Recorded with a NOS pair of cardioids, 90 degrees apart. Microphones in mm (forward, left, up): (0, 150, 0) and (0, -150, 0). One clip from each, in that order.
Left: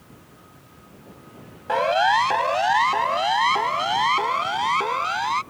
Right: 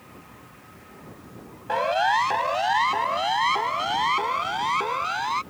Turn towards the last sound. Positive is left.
turn(degrees=20)